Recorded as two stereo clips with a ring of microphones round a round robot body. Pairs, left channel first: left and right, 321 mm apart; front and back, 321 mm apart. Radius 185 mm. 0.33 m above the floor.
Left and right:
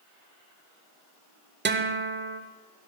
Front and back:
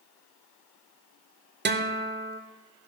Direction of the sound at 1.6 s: 135° right.